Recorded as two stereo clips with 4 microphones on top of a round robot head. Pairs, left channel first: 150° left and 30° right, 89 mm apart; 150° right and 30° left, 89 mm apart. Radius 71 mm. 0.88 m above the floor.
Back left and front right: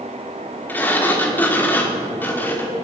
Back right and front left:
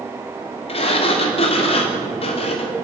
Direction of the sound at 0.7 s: 140° right.